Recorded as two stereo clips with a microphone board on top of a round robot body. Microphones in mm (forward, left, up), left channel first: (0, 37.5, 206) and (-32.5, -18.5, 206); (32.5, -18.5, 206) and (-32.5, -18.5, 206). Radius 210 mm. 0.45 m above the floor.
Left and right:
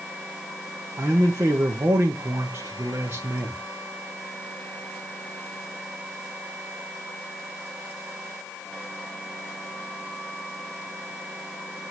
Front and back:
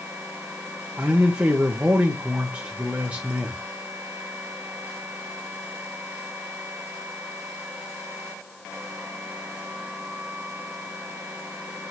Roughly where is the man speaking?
Behind right.